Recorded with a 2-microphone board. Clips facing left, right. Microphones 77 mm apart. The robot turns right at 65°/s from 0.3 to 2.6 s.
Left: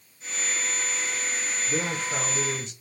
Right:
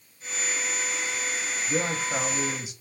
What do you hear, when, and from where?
1.7 s a man speaking: 20° right (ahead or behind), 1.0 m; by 2.7 s 10° right (ahead or behind), 1.0 m